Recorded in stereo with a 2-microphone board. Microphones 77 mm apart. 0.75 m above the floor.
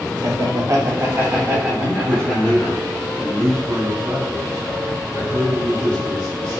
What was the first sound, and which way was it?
Laughter, 50° right (ahead or behind).